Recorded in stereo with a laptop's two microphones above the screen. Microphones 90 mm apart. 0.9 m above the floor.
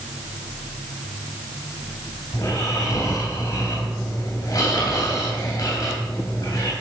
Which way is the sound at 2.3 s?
50° left (ahead or behind).